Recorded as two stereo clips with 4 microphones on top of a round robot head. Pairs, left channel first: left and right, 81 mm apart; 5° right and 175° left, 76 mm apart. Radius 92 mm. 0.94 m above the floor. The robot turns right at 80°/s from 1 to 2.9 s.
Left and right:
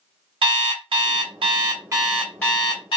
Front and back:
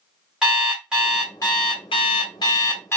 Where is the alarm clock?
100° right, 1.3 m; by 3.0 s 55° left, 1.3 m.